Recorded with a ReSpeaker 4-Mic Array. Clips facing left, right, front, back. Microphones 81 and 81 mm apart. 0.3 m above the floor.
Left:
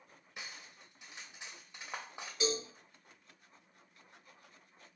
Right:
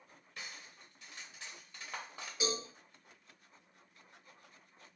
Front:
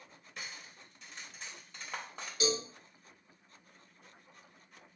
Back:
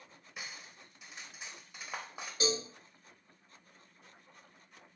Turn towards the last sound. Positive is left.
turn(degrees=-170)